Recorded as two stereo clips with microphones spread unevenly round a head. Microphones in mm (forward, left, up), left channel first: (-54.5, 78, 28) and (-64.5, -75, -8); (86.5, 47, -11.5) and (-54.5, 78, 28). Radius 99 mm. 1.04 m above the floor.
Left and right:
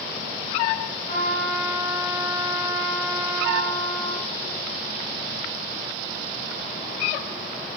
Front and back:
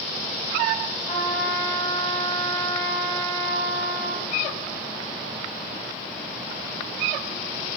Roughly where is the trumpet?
Ahead left.